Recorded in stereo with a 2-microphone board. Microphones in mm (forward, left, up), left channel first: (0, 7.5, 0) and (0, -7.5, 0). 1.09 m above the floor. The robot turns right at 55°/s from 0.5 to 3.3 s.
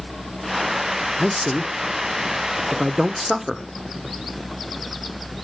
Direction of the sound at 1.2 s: 20° right (ahead or behind).